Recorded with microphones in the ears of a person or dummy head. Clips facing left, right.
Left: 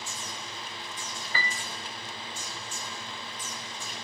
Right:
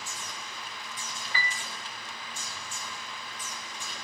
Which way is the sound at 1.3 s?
40° left (ahead or behind).